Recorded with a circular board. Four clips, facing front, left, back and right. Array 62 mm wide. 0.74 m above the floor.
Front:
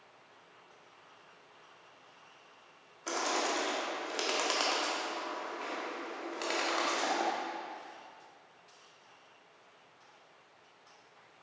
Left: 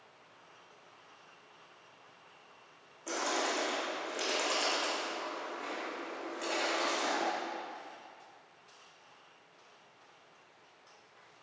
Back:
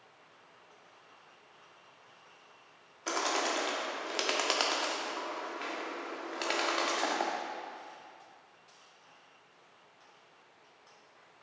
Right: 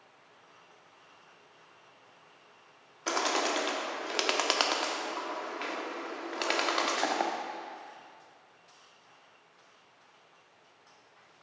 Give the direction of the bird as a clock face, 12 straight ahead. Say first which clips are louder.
Right 4 dB, back 1 dB; 4 o'clock.